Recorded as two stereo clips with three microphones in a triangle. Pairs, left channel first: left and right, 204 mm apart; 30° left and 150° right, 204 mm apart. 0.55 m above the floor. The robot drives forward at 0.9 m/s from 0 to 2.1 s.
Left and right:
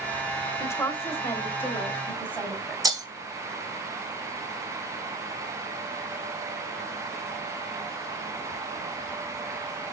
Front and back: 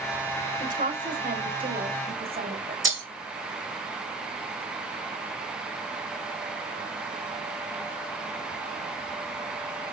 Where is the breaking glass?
160° right, 2 m.